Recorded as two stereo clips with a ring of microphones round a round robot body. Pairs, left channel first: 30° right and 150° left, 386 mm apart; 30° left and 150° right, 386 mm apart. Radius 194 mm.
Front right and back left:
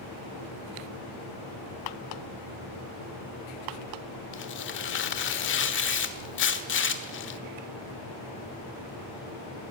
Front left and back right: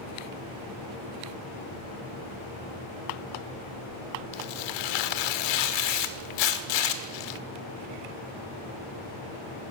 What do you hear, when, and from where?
4.3 s tearing paper: 30° left, 1.6 m